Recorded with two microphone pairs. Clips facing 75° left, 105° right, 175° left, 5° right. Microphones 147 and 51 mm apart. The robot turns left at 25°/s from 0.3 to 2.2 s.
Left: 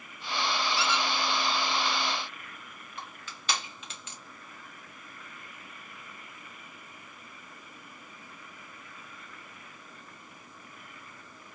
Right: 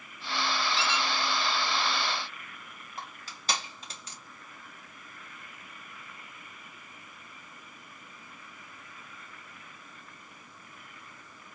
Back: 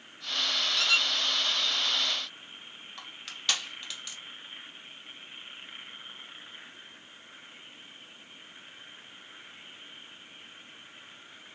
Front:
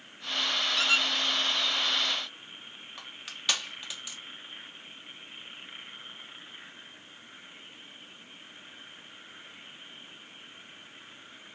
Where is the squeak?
55° right, 2 m; by 1.1 s 65° right, 2 m.